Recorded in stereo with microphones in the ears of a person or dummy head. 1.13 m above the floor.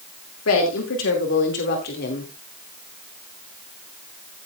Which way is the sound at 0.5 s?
75° left (ahead or behind).